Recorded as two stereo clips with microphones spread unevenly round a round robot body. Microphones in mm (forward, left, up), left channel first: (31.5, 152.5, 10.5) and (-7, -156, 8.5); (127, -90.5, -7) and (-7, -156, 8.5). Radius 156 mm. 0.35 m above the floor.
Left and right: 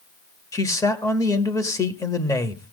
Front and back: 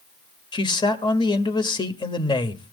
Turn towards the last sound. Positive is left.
turn(degrees=10)